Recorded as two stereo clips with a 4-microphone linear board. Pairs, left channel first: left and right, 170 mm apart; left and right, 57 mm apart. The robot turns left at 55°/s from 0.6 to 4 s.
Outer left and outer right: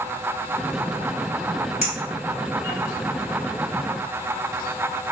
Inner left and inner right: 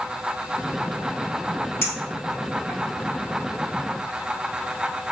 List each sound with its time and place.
1.8 s a clink: 40° left (ahead or behind), 1.6 m; by 2.8 s 5° right (ahead or behind), 1.6 m